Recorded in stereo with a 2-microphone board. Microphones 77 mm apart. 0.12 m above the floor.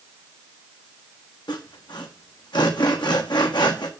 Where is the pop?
No pop in this recording.